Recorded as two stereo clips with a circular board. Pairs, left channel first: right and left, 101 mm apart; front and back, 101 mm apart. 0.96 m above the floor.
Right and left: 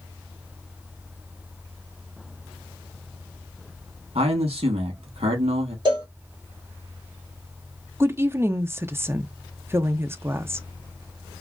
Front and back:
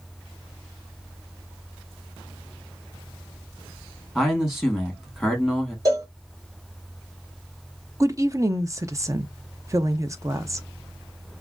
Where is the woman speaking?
140° left, 0.5 m.